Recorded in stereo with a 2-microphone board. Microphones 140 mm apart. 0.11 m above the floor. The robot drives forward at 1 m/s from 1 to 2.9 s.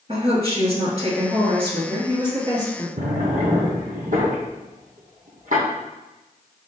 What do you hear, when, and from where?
0.1 s a woman speaking: 45° right (ahead or behind), 1.9 m; by 2.9 s 30° right (ahead or behind), 2.5 m
3.0 s a drawer: 70° right (ahead or behind), 1.8 m